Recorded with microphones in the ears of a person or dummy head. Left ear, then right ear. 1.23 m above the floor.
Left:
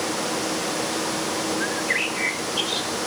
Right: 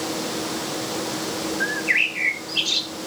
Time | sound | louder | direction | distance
1.6 | a bird | right 6 dB | 40° right (ahead or behind) | 1.1 m